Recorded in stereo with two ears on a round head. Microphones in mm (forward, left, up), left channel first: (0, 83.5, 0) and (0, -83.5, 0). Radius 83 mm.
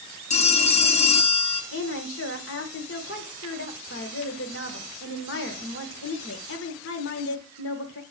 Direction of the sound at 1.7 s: 70° left (ahead or behind).